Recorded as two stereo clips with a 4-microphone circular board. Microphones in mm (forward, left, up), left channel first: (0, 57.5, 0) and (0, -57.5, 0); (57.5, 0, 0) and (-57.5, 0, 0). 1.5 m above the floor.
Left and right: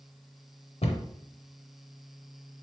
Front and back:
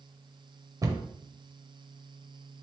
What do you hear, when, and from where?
0.8 s a cupboard door: 120° left, 0.7 m